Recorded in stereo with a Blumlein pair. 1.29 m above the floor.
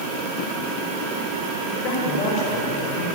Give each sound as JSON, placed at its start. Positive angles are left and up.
{"t": 1.7, "sound": "a man speaking", "azimuth_deg": 40, "distance_m": 7.5}